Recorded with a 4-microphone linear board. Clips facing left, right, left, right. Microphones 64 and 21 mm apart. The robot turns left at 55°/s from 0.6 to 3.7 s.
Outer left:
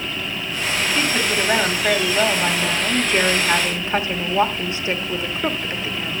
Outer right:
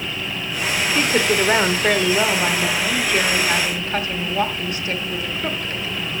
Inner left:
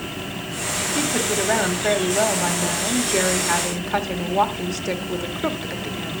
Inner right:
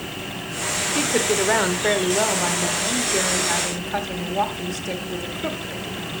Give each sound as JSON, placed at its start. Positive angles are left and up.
{"t": 0.9, "sound": "a woman speaking", "azimuth_deg": -80, "distance_m": 1.1}